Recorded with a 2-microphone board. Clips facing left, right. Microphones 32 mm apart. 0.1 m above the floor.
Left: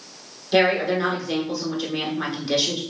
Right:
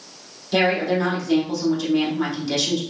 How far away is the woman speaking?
About 1.1 m.